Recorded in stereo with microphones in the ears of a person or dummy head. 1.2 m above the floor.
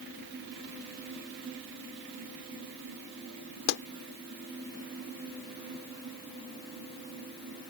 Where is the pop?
70° left (ahead or behind).